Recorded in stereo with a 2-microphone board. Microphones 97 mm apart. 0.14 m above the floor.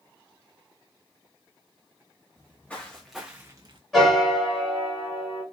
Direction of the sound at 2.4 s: 20° left (ahead or behind).